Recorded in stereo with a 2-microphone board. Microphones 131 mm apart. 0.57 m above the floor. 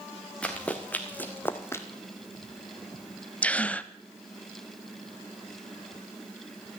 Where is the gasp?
10° left (ahead or behind), 0.6 m.